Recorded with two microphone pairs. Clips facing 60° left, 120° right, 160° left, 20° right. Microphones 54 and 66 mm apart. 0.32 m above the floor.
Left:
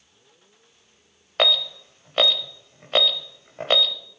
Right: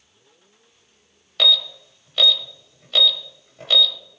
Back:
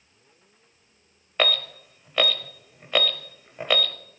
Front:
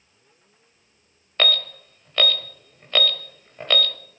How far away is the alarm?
About 0.8 m.